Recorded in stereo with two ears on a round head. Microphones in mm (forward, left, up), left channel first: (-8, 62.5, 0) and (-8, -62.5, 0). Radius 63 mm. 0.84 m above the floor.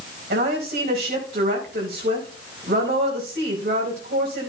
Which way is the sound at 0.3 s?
80° right.